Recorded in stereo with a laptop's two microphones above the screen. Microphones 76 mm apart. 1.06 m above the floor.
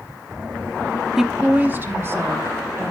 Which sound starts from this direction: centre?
A woman speaking, at 1.2 s.